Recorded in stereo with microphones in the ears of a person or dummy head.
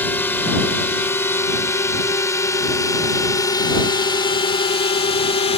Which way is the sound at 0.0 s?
5° left (ahead or behind).